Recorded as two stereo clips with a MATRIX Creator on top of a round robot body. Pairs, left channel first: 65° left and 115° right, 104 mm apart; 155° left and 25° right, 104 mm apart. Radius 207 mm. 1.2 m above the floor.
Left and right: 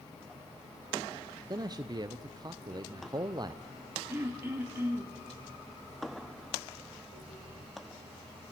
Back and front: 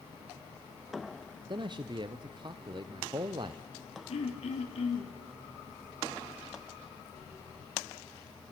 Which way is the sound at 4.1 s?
Straight behind.